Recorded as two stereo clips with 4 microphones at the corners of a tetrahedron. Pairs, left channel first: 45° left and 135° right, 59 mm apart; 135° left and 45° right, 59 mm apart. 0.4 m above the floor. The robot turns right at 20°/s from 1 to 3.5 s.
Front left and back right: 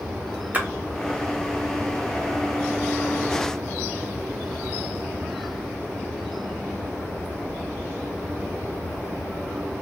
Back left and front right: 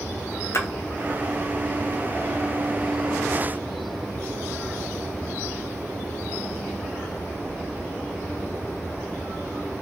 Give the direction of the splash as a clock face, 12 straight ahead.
7 o'clock.